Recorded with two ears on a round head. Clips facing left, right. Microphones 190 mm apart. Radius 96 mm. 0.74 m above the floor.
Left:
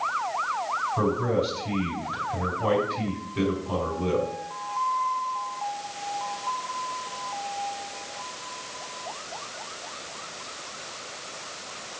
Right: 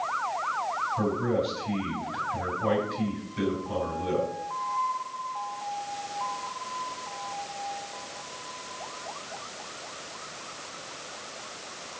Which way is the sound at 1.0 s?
70° left (ahead or behind).